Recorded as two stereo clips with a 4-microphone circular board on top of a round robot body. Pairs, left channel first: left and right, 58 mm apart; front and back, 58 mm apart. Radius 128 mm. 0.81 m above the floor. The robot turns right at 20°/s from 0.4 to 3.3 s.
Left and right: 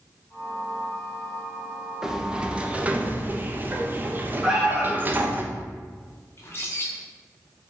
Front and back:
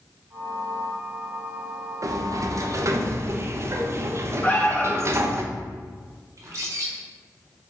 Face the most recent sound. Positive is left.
turn(degrees=140)